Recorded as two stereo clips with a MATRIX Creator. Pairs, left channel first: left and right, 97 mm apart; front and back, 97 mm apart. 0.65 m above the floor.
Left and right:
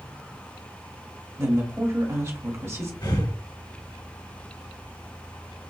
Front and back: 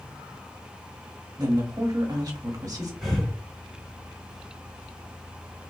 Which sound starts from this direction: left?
Breathing, at 3.0 s.